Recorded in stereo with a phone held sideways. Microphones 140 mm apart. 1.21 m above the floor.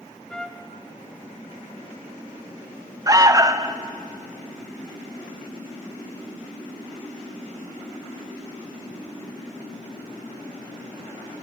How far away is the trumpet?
About 1.1 m.